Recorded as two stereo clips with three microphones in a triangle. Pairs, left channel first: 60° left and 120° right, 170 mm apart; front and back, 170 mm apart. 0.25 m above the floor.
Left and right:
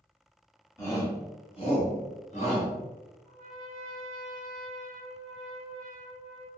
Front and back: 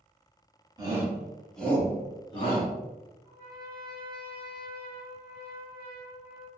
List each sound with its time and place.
0.8 s a shout: 125° left, 1.3 m; by 2.7 s 35° left, 1.6 m
3.2 s a trumpet: 115° left, 1.1 m